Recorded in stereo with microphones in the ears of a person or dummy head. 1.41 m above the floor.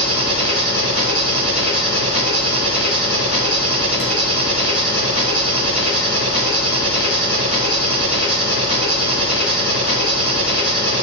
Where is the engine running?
55° left (ahead or behind), 4 m.